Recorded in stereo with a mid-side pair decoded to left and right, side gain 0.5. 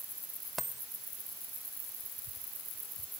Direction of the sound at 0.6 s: 15° right.